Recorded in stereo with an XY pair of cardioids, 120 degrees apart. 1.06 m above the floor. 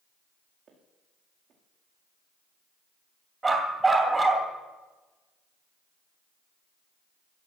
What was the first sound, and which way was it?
Footsteps, 50° right.